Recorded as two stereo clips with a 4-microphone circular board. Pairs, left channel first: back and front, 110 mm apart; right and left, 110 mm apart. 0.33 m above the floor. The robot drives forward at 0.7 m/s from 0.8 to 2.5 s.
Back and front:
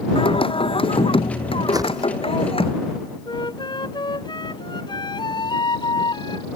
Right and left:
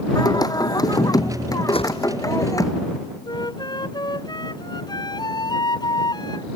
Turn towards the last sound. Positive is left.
turn(degrees=-135)